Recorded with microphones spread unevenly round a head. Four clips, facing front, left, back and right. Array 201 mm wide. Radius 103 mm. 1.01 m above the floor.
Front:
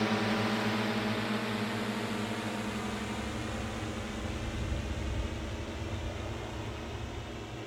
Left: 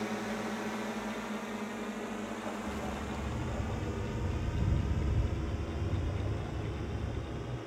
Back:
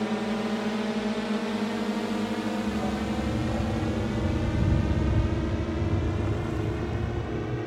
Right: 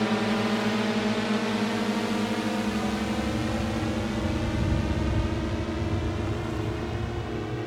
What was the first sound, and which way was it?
A drone, 105° right.